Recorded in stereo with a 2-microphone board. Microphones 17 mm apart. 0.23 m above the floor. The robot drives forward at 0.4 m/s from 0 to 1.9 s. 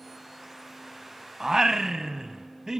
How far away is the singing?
About 0.6 m.